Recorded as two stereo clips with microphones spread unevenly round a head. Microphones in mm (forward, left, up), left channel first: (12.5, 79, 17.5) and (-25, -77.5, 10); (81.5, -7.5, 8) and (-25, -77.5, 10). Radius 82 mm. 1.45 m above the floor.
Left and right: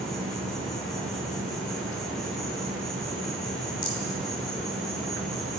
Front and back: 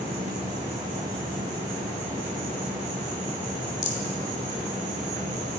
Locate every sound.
0.0 s an insect: 165° left, 3.5 m
3.8 s a rattle: 20° left, 1.9 m